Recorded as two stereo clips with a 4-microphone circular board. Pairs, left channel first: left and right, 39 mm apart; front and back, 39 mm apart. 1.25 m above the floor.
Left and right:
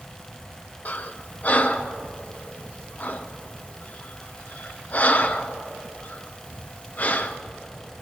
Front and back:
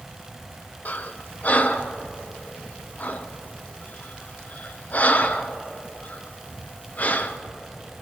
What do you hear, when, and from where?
0.8 s breathing: 45° left, 0.7 m